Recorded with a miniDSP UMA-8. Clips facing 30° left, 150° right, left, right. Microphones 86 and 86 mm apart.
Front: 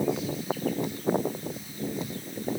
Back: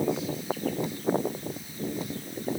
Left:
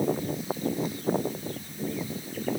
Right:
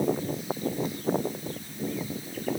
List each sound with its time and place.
Only background noise.